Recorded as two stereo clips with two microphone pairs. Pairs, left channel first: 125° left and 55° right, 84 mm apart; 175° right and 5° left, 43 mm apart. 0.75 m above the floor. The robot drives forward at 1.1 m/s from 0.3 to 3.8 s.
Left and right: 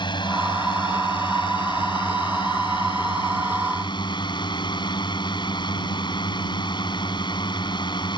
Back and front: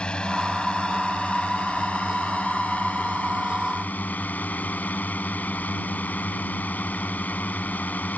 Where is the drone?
120° left; by 8.2 s 140° left.